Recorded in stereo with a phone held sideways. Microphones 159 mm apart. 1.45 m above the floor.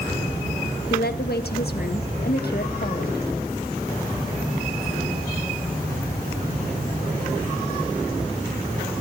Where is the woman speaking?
80° left, 1.5 m.